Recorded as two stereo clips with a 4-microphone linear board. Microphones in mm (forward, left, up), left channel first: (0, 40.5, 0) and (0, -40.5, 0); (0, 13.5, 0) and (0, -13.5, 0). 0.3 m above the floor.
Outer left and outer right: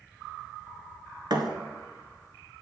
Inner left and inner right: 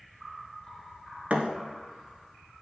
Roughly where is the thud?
Right.